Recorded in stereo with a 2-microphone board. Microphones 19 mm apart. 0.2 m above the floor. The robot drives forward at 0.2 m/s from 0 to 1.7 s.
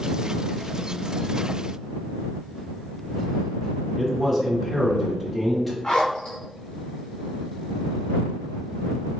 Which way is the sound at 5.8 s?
50° left (ahead or behind).